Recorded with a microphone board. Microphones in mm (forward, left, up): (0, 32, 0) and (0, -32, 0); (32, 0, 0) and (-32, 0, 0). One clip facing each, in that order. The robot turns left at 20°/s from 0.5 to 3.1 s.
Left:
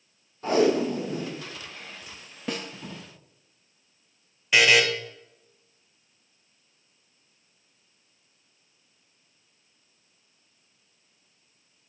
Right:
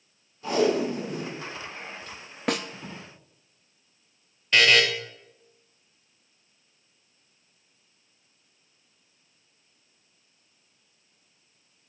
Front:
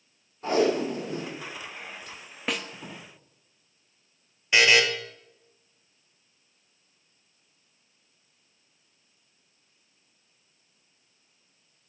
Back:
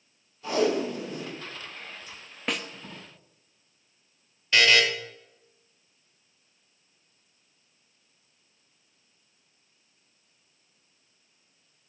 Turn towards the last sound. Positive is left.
turn(degrees=30)